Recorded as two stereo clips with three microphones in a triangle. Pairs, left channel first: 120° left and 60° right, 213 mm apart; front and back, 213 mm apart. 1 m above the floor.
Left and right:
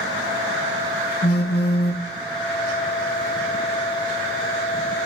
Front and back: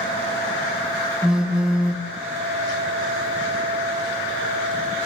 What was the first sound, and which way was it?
A phone buzzing, 95° left.